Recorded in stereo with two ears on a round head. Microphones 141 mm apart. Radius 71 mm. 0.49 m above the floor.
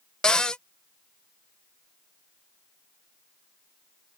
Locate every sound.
0.2 s a cupboard door: 5° left (ahead or behind)